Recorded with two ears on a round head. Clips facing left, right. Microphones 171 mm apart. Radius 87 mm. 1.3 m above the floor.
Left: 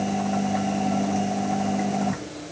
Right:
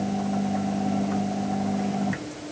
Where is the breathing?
I don't hear breathing.